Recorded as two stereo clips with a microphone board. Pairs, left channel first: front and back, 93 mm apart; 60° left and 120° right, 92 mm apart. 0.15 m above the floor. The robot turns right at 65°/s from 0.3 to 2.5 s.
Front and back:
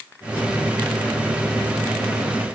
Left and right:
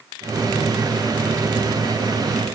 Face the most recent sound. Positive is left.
No sound to turn to.